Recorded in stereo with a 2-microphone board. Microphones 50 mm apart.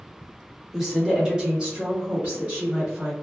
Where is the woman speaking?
5° right (ahead or behind), 1.1 m; by 3.1 s 30° right (ahead or behind), 1.8 m.